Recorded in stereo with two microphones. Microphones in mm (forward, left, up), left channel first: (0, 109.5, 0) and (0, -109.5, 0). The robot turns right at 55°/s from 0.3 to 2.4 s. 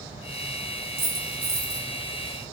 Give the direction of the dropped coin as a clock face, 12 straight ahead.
3 o'clock.